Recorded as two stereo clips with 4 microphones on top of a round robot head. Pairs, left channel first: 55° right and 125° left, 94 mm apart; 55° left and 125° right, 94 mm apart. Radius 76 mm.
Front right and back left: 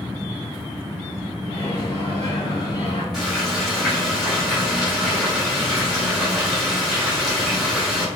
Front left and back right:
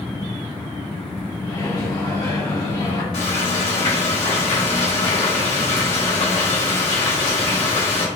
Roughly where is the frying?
Ahead left.